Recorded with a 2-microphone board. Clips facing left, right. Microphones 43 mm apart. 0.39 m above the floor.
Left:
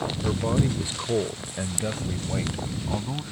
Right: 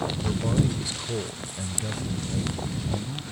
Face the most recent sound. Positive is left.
turn(degrees=50)  # may be behind; listen again after turning